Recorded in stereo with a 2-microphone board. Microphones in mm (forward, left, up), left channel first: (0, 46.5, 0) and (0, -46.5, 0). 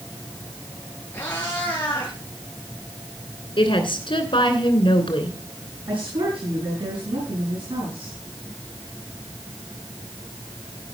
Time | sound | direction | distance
1.1 | a cat meowing | 20° left (ahead or behind) | 4 m
3.6 | a woman speaking | 60° left (ahead or behind) | 2.5 m
5.9 | a woman speaking | 65° right (ahead or behind) | 7 m